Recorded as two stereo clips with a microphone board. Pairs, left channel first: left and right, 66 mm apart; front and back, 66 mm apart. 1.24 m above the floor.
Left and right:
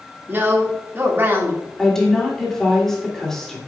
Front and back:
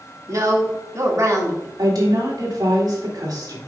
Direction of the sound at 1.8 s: 175° left.